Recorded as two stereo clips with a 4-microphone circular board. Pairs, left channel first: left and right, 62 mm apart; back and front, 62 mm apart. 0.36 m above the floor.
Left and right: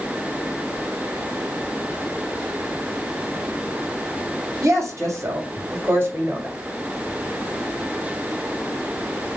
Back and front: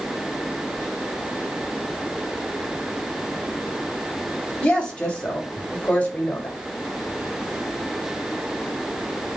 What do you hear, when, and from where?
4.6 s a woman speaking: 110° right, 2.0 m; by 6.6 s 135° right, 1.2 m